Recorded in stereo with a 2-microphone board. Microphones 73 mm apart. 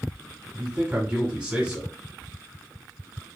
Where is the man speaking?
10° right (ahead or behind), 1.3 m.